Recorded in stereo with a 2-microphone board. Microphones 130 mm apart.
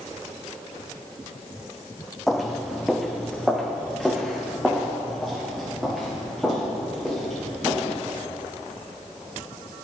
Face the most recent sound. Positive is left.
turn(degrees=0)  # may be behind; listen again after turning